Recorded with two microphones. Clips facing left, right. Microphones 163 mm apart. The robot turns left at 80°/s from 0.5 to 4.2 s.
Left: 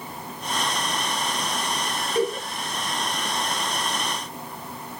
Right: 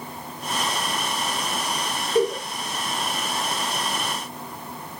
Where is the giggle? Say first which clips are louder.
Right 3 dB; 35° right (ahead or behind), 8.5 m; by 2.4 s 55° right (ahead or behind), 8.5 m.